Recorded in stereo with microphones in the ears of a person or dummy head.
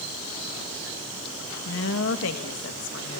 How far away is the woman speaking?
About 1.5 m.